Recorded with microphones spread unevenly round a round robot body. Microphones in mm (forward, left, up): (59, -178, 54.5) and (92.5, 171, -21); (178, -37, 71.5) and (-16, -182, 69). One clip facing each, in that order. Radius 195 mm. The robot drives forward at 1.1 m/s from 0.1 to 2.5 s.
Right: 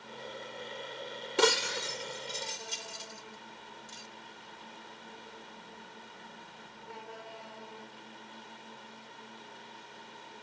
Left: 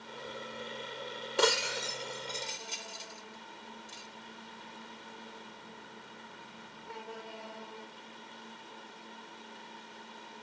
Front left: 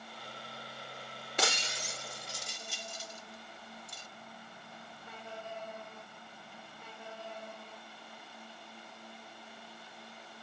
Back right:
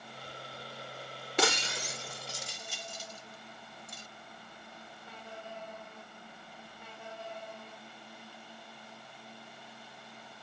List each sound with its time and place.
1.4 s breaking glass: 160° right; by 4.1 s 170° right